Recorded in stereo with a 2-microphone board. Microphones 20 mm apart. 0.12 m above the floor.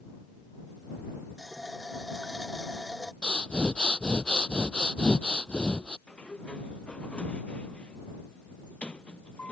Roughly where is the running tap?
Right.